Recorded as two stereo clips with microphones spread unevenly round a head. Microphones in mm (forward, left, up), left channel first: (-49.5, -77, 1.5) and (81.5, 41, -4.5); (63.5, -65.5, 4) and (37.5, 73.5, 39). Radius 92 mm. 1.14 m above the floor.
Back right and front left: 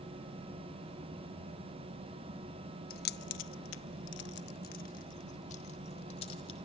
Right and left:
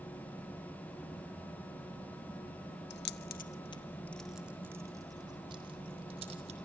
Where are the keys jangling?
100° right, 0.8 m; by 6.5 s 160° left, 2.5 m.